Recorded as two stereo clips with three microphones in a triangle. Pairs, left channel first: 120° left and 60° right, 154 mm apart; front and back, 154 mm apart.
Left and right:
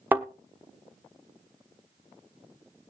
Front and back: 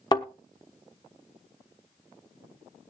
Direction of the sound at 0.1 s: 5° left.